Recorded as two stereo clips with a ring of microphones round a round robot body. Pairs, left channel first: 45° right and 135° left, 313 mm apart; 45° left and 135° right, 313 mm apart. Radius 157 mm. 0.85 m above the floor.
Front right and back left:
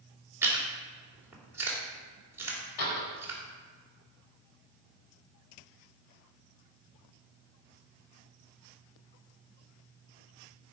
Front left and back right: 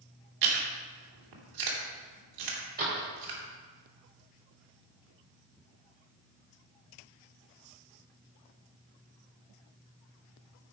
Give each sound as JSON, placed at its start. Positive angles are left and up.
{"t": 0.4, "sound": "chewing", "azimuth_deg": -145, "distance_m": 2.5}
{"t": 2.8, "sound": "a door slam", "azimuth_deg": -70, "distance_m": 3.0}